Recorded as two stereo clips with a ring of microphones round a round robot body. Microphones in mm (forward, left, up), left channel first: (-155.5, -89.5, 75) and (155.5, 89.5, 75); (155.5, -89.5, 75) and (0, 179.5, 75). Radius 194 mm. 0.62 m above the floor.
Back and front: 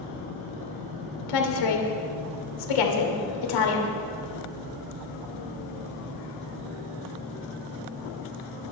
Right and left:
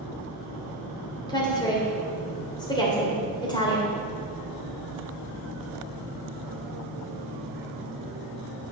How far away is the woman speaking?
About 2.5 m.